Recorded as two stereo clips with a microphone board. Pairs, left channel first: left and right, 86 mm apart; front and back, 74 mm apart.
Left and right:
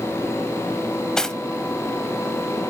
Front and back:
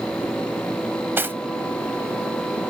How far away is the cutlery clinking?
About 0.5 m.